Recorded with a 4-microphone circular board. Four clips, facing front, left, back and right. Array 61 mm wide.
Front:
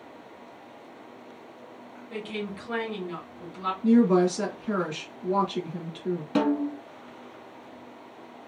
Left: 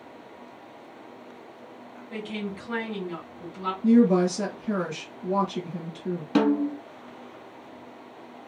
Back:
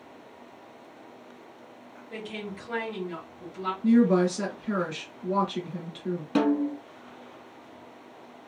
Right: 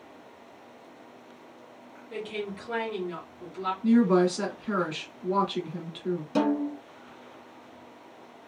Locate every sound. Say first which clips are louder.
2.1 s a woman speaking: left 1 dB, front 3 dB; 5° left, 1.7 m
3.8 s a woman speaking: left 2 dB, front 1 dB; 75° right, 1.8 m
6.3 s a snare drum: left 4 dB, back 1 dB; 95° left, 0.8 m